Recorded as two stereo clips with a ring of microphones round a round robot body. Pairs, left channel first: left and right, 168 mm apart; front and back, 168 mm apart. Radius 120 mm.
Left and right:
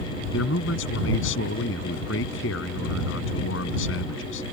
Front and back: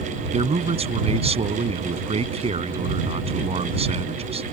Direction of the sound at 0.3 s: 125° left.